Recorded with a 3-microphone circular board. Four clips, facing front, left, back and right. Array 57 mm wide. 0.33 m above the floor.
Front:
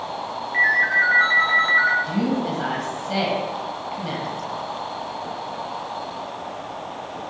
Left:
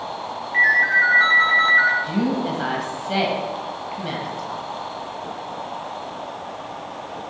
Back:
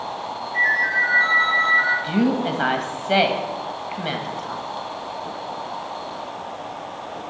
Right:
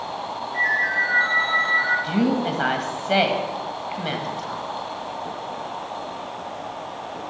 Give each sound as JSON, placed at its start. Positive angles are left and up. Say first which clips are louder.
{"t": 0.5, "sound": "a ringtone", "louder": "left 5 dB, front 1 dB", "azimuth_deg": 55, "distance_m": 3.0}
{"t": 2.0, "sound": "a woman speaking", "louder": "right 1 dB, back 2 dB", "azimuth_deg": -145, "distance_m": 1.4}